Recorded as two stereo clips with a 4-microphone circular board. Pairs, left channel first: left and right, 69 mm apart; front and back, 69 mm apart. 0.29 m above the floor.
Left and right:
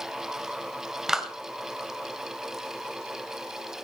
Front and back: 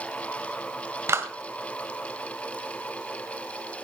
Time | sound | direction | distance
1.1 | a clap | 170° right | 1.4 m